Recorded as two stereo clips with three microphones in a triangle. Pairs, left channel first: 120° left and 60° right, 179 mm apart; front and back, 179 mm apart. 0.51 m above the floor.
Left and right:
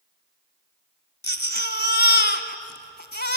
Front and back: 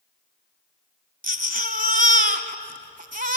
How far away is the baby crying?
About 1.3 m.